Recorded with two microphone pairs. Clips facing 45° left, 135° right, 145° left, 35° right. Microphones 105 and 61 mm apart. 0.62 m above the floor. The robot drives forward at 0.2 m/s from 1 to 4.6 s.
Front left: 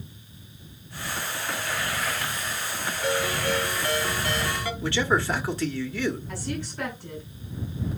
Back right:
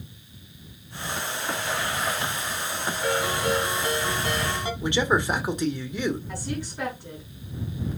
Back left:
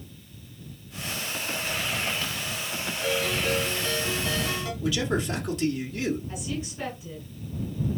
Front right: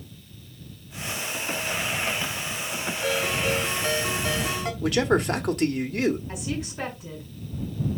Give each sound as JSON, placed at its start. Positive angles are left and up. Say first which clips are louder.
{"t": 3.0, "sound": "a ringtone", "louder": "back right 1 dB, front right 1 dB", "azimuth_deg": -65, "distance_m": 3.0}
{"t": 4.8, "sound": "a man speaking", "louder": "back right 1 dB, front right 6 dB", "azimuth_deg": -65, "distance_m": 1.4}
{"t": 6.3, "sound": "a woman speaking", "louder": "even, front right 2 dB", "azimuth_deg": -55, "distance_m": 6.0}